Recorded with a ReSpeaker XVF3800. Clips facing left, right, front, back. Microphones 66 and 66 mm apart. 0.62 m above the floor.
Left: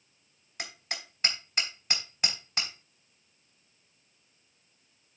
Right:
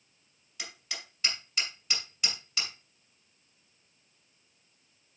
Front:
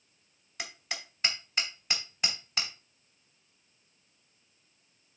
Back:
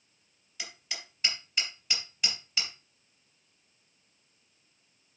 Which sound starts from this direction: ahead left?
Hammering, at 0.6 s.